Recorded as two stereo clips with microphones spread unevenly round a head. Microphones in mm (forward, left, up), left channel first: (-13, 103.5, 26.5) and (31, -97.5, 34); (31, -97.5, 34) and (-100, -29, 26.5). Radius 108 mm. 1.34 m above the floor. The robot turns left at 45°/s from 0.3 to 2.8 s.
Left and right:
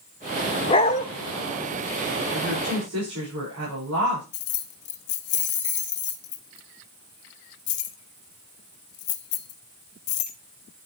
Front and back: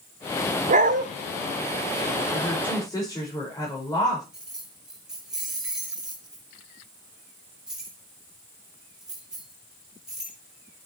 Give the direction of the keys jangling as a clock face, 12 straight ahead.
10 o'clock.